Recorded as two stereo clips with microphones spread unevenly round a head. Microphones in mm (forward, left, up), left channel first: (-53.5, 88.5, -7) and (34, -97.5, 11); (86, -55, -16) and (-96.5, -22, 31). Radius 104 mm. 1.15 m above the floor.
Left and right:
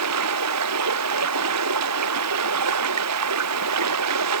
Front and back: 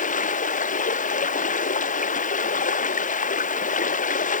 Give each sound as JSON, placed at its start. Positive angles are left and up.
{"t": 0.0, "sound": "running water", "azimuth_deg": -60}